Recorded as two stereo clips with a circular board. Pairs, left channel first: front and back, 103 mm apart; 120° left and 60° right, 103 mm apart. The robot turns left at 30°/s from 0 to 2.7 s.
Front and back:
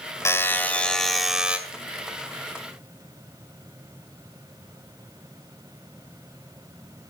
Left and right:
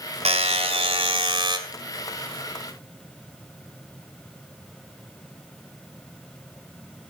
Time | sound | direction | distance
0.2 | a buzzer | 60° right | 2 m